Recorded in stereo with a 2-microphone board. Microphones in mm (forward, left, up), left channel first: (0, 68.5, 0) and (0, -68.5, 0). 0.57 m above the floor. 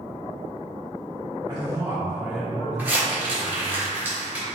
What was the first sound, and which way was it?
A man speaking, 30° right (ahead or behind).